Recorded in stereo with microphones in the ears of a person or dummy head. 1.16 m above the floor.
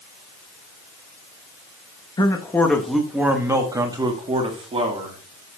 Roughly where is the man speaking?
Left.